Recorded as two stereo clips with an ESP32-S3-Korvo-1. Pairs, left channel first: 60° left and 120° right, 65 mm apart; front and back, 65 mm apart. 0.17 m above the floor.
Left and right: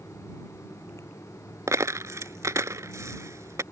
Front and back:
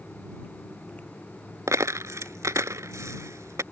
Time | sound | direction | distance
1.7 | a dropped coin | 150° right | ?